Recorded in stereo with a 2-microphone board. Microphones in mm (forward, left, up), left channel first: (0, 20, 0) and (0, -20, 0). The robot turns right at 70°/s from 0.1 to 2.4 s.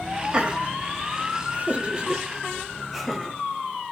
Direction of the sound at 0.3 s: 20° right (ahead or behind).